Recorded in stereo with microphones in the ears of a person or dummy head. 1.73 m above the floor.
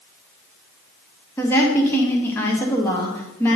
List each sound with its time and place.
1.4 s a woman speaking: 15° left (ahead or behind), 1.1 m